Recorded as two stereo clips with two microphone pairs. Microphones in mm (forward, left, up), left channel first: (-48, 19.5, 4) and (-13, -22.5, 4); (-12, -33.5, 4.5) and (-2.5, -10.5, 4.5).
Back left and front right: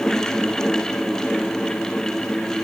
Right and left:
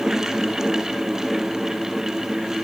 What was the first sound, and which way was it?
Only background noise.